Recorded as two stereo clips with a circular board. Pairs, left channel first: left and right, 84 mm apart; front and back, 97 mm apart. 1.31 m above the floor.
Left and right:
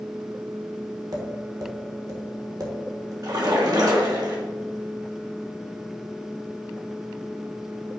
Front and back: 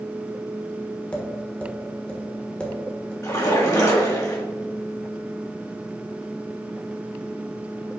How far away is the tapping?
About 1.3 m.